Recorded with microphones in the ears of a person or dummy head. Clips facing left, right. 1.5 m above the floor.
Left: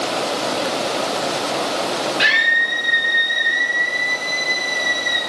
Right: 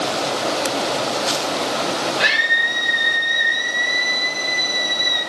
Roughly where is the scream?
Left.